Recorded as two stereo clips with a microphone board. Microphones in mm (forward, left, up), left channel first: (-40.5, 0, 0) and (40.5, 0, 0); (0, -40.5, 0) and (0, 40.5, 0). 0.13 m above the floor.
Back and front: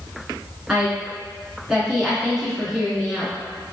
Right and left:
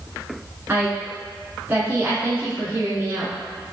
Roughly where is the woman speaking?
Left.